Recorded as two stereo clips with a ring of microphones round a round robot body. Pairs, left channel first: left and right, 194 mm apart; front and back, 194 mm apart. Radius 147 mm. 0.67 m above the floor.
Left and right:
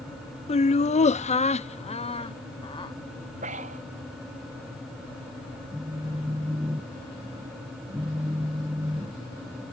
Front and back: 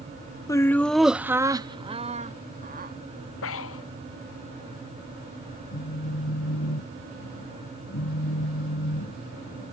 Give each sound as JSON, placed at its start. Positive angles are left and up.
{"t": 0.5, "sound": "laughter", "azimuth_deg": 60}
{"t": 3.4, "sound": "breathing", "azimuth_deg": -25}
{"t": 5.7, "sound": "a phone buzzing", "azimuth_deg": -10}